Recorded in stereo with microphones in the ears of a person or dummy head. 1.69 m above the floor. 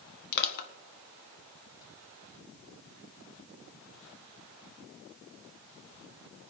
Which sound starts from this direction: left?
Crushing, at 0.3 s.